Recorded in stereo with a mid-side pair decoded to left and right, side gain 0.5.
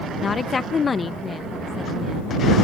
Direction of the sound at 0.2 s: 35° left.